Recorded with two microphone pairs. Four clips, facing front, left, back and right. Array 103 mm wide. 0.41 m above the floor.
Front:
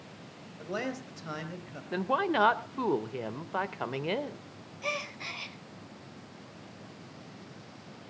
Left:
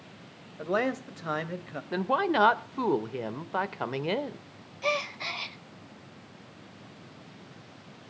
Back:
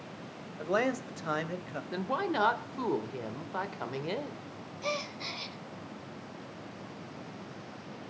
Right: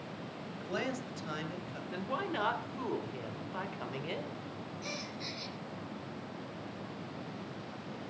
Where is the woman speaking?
70° left, 1.1 m.